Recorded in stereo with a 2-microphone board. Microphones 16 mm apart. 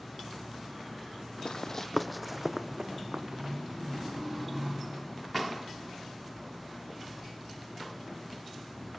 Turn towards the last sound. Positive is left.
turn(degrees=-45)  # may be behind; listen again after turning